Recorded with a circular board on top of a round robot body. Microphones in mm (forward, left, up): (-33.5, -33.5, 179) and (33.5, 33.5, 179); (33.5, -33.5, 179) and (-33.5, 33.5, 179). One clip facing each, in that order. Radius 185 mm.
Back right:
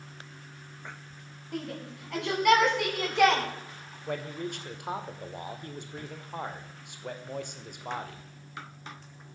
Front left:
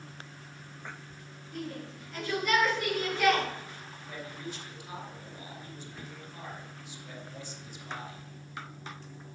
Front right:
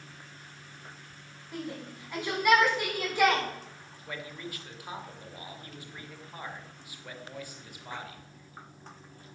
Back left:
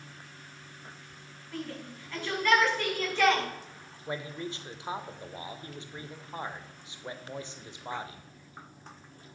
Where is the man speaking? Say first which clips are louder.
Back right 8 dB, back left 4 dB; 160° right, 2.5 m.